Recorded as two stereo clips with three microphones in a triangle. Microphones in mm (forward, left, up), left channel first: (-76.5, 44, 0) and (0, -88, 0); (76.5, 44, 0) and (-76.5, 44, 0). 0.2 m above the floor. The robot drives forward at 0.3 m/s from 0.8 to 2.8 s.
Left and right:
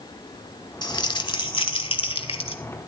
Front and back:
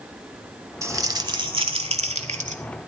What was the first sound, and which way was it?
Crumpling, 130° left.